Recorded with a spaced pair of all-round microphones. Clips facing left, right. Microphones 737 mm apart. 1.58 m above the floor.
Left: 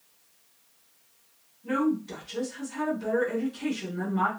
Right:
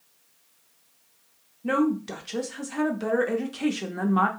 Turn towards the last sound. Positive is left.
turn(degrees=-85)